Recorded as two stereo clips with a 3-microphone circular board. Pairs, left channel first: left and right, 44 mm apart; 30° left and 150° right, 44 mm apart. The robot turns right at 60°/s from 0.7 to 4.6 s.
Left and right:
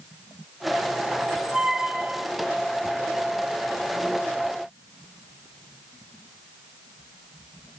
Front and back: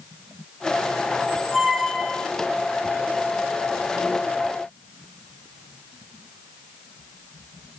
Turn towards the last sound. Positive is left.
turn(degrees=100)